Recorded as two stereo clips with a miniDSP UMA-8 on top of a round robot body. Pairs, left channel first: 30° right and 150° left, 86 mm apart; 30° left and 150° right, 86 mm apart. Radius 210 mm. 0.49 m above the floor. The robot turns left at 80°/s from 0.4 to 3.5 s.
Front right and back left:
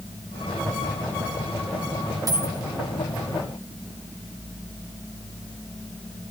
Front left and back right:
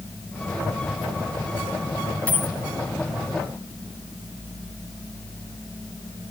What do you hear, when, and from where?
2.3 s a dropped coin: 105° left, 2.5 m; by 2.6 s 85° left, 2.5 m